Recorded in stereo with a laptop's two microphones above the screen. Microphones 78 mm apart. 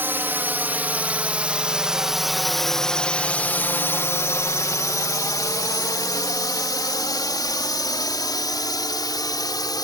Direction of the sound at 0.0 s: 30° right (ahead or behind).